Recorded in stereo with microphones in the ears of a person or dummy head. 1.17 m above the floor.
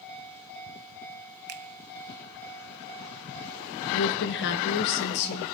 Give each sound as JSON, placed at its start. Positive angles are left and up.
{"t": 1.5, "sound": "a finger snap", "side_deg": -60, "distance_m": 0.8}
{"t": 3.9, "sound": "a woman speaking", "side_deg": 55, "distance_m": 0.8}